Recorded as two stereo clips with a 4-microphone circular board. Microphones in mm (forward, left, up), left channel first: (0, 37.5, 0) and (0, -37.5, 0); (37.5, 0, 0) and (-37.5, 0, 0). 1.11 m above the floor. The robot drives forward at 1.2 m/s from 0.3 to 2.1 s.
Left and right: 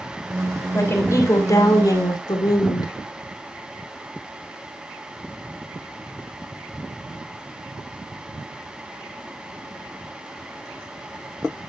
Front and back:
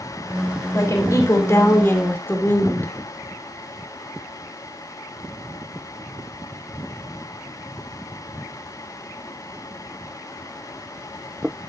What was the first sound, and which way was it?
A woman speaking, 35° left.